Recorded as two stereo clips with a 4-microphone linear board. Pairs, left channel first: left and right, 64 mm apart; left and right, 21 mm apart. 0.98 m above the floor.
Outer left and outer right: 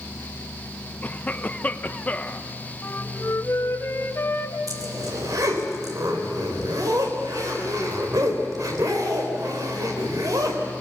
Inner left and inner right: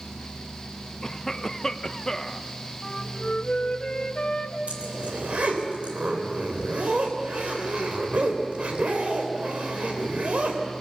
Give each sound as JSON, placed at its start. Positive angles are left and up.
{"t": 1.0, "sound": "a cough", "side_deg": 25, "distance_m": 0.7}
{"t": 2.8, "sound": "a flute", "side_deg": 45, "distance_m": 1.3}
{"t": 4.7, "sound": "a zipper", "side_deg": -75, "distance_m": 3.0}